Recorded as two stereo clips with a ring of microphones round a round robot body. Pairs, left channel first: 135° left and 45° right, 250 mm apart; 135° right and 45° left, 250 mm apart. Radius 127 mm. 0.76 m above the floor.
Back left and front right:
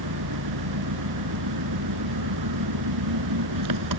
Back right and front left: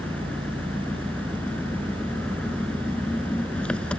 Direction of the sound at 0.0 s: 50° right.